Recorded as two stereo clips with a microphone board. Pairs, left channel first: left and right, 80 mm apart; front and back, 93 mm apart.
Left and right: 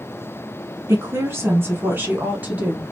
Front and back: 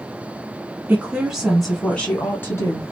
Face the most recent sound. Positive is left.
turn(degrees=-20)